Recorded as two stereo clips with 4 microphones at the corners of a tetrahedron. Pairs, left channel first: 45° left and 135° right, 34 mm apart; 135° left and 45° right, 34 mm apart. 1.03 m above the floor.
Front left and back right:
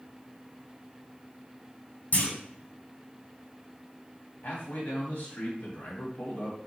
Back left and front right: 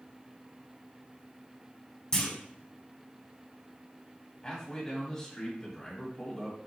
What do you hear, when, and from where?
2.1 s a clunk: 70° left, 1.5 m
4.4 s a man speaking: 75° left, 1.6 m